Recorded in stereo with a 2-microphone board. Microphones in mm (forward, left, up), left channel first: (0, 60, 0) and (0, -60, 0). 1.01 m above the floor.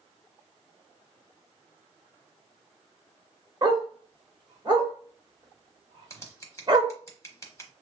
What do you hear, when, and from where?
3.6 s a dog barking: 40° right (ahead or behind), 1.1 m
6.1 s scissors: 25° left (ahead or behind), 0.9 m